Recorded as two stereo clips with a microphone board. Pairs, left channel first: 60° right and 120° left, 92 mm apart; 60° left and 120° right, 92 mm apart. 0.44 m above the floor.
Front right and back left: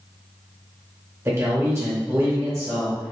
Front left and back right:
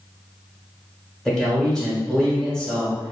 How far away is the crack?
I don't hear a crack.